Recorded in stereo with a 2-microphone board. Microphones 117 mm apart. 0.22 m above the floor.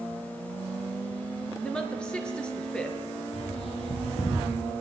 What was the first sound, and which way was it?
A woman speaking, 10° left (ahead or behind).